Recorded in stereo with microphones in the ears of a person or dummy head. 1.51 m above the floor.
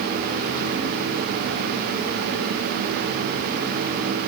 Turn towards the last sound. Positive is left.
No sound to turn to.